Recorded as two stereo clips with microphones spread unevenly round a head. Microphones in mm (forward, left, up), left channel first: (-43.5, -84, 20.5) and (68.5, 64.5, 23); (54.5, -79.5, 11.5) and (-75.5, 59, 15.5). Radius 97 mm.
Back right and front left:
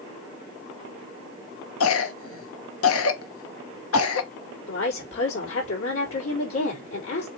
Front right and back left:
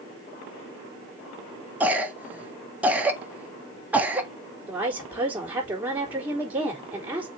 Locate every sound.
1.8 s a cough: 145° right, 1.3 m
4.7 s a woman speaking: 145° right, 4 m